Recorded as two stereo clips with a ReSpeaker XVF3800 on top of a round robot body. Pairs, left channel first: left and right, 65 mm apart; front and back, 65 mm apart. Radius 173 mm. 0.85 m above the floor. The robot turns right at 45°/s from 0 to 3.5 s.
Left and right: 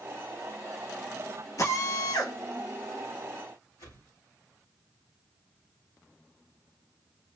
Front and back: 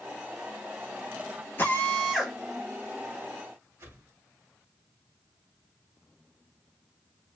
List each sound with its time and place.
1.6 s a drill: 60° left, 2 m; by 2.4 s 95° left, 2 m
3.8 s a whoosh: 135° left, 2 m